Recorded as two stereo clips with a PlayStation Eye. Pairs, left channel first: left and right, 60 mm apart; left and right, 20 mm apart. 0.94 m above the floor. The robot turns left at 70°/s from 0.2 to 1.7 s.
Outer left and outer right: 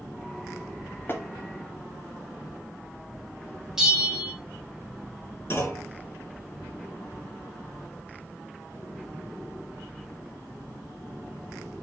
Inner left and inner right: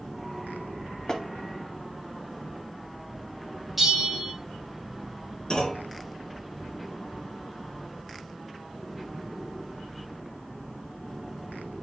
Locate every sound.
1.1 s tapping: 40° left (ahead or behind), 1.4 m; by 1.2 s 45° left (ahead or behind), 1.4 m
3.8 s a bell: 10° right (ahead or behind), 3.5 m
5.5 s a clunk: 40° left (ahead or behind), 3.5 m